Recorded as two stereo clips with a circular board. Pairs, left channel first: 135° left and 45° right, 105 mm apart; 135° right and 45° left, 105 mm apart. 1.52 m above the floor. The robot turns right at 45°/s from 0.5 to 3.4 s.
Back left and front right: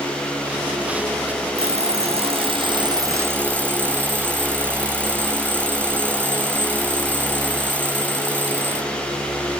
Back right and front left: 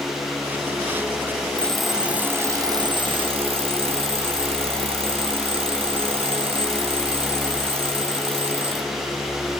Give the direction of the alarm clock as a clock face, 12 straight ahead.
2 o'clock.